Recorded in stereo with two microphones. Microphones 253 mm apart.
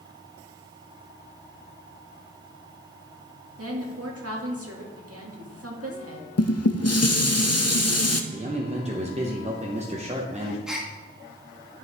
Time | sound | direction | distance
3.6 | a woman speaking | 70° right (ahead or behind) | 1.7 m
6.4 | dishes clattering | 85° left | 0.5 m
8.3 | a man speaking | 25° right (ahead or behind) | 0.9 m
10.7 | a gasp | 5° right (ahead or behind) | 1.2 m